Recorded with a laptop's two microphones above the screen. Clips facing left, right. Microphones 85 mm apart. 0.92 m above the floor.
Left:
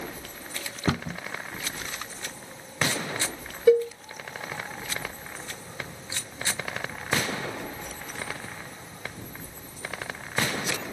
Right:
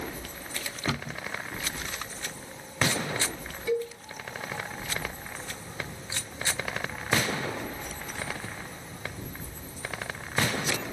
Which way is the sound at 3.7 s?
50° left (ahead or behind).